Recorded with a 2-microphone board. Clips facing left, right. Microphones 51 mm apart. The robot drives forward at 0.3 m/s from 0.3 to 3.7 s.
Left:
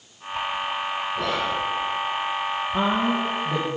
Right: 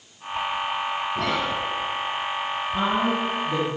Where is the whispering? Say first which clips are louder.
Even; 65° right (ahead or behind), 2.5 m.